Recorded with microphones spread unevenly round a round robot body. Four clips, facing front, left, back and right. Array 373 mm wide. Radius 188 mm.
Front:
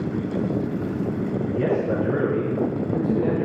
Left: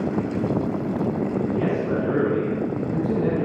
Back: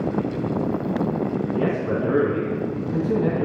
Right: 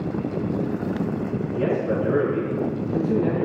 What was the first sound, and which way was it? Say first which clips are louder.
A man speaking: even, front 3 dB; 155° left.